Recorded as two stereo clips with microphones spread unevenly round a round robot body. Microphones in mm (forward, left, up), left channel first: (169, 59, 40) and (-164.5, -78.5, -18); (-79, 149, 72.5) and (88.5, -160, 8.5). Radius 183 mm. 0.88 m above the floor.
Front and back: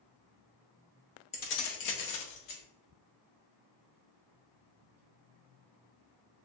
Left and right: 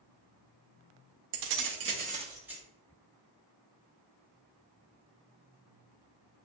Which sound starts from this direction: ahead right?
Keys jangling, at 1.3 s.